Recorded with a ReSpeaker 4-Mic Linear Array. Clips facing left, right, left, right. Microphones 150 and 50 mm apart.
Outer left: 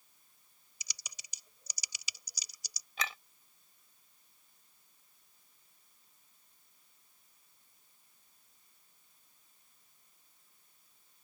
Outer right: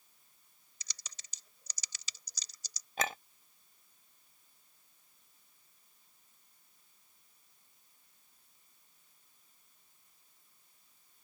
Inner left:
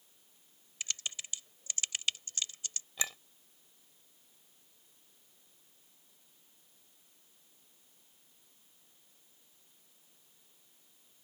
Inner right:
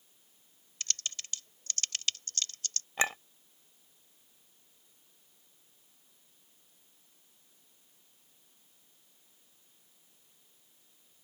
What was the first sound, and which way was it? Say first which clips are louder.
Typing on a keyboard: outer left 1 dB, inner right 1 dB; 10° left (ahead or behind).